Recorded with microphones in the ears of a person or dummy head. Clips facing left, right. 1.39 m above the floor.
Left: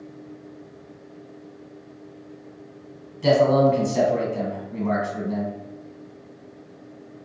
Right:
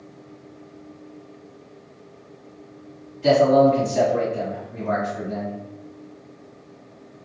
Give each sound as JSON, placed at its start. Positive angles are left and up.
{"t": 3.2, "sound": "a man speaking", "side_deg": 65, "distance_m": 1.4}